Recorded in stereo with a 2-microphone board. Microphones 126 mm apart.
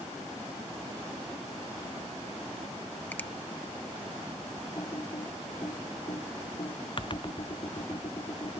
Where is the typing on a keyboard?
40° left (ahead or behind).